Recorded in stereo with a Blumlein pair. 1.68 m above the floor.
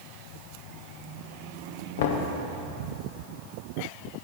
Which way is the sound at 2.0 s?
55° left.